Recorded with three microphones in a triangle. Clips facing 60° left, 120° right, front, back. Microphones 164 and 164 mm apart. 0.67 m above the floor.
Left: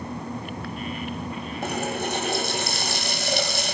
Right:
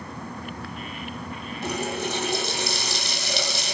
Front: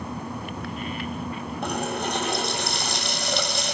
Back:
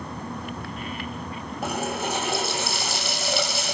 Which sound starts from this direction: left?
A running tap, at 1.6 s.